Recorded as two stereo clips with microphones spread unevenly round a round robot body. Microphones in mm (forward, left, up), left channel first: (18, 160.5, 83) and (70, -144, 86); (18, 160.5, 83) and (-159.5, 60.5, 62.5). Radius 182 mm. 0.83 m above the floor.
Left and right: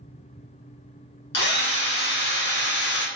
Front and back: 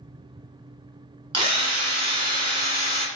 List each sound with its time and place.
1.3 s a drill: 150° left, 1.1 m